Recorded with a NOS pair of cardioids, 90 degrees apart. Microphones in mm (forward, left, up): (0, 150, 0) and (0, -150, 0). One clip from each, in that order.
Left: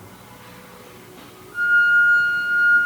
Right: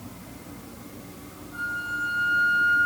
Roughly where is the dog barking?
No dog barking in this recording.